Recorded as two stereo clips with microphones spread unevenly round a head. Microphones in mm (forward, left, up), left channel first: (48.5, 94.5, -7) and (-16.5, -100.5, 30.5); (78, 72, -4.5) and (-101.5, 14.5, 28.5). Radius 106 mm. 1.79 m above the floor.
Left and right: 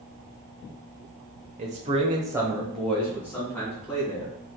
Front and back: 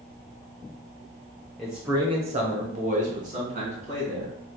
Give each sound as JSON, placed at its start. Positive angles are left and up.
{"t": 1.6, "sound": "a man speaking", "azimuth_deg": -80, "distance_m": 1.0}